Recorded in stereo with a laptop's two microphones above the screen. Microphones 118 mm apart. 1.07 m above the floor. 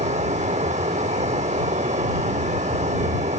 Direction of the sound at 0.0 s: 80° right.